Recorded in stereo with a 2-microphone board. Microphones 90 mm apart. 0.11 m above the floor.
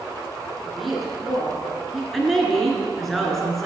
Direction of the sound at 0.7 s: Centre (ahead or behind).